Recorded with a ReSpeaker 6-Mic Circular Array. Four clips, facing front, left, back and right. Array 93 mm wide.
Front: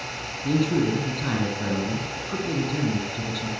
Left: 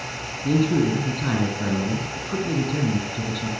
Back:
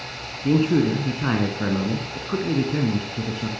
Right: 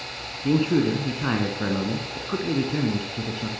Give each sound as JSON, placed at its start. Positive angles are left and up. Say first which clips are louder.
{"t": 0.4, "sound": "a man speaking", "louder": "even, back 4 dB", "azimuth_deg": -145, "distance_m": 1.4}